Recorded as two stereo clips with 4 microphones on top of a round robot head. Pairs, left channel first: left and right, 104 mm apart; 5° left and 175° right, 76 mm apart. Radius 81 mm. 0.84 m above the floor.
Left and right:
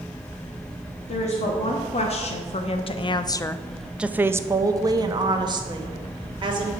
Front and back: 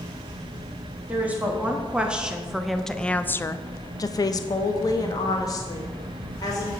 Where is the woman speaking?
115° left, 1.4 m; by 6.7 s 45° right, 1.9 m.